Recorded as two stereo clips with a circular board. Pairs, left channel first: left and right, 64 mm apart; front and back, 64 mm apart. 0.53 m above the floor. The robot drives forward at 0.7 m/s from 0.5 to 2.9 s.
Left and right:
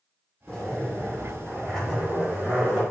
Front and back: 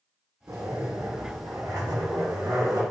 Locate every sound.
0.5 s a zipper: 170° left, 0.9 m; by 2.8 s 175° left, 2.5 m